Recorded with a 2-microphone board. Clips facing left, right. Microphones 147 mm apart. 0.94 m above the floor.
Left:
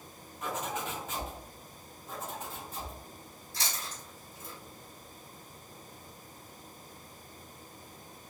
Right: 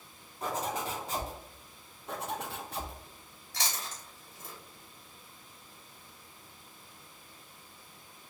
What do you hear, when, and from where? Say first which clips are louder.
0.4 s a zipper: right 2 dB; 35° right (ahead or behind), 1.0 m
2.1 s a zipper: right 4 dB; 65° right (ahead or behind), 0.6 m
3.5 s chewing: right 2 dB; 90° right, 1.4 m